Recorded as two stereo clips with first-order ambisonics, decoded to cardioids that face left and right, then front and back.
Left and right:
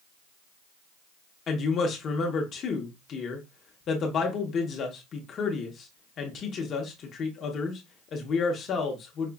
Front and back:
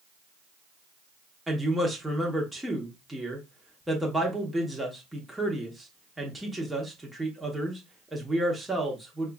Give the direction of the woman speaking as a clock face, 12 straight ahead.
9 o'clock.